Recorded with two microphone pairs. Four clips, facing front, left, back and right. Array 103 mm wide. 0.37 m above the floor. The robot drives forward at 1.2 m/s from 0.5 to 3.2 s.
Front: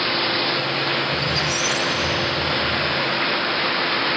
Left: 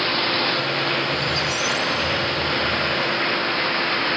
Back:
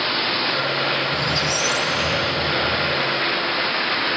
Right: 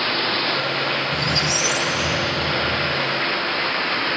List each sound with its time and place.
1.1 s a squeak: 120° right; by 3.1 s 140° right